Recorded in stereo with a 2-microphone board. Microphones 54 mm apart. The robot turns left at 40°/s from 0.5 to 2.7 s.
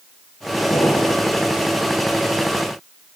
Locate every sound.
0.7 s an explosion: 80° left, 8.5 m; by 1.3 s 75° left (ahead or behind), 8.5 m